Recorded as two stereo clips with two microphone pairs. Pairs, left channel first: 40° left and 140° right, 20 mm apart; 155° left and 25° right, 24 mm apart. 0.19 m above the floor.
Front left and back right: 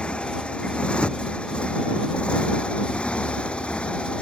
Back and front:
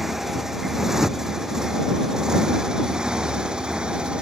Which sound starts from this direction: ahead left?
A motorcycle, at 0.0 s.